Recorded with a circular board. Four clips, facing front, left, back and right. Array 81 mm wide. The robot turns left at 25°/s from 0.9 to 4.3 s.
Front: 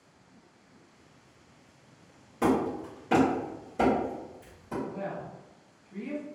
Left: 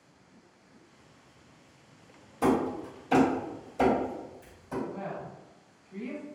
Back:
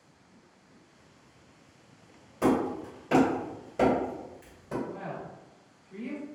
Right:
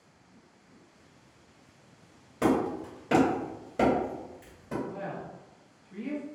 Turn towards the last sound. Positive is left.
turn(degrees=-125)